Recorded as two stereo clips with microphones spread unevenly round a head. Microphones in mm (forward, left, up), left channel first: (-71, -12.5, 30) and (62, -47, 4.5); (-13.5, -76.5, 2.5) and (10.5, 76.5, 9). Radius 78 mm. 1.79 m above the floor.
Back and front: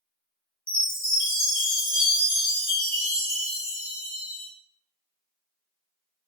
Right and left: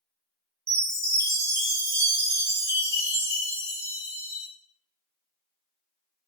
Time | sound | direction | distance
0.7 | a chime | 155° left | 1.3 m